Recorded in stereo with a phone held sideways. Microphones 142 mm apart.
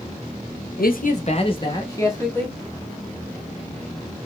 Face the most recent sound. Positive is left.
turn(degrees=15)  # may be behind; listen again after turning